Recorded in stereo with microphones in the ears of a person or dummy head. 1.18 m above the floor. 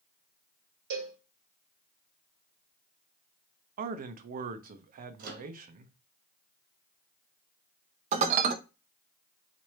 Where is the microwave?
45° right (ahead or behind), 1.3 m.